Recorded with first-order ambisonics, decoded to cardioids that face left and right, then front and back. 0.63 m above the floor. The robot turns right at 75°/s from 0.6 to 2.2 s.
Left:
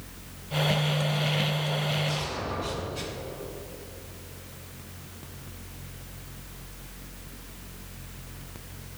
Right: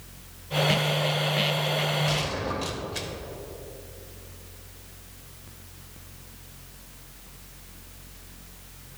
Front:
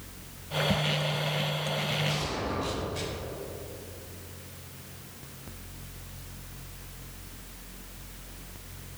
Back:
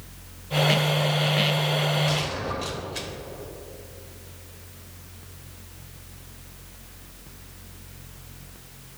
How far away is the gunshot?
About 1.4 m.